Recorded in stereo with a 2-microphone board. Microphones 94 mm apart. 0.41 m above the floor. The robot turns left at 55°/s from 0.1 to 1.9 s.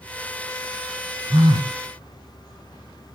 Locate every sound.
1.3 s a phone buzzing: 35° right (ahead or behind), 0.7 m; by 1.8 s 60° right (ahead or behind), 0.7 m